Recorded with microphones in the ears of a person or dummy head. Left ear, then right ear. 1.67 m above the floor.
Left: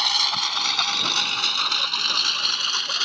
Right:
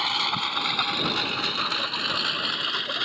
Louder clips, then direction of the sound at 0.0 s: Left 4 dB; 55° left (ahead or behind).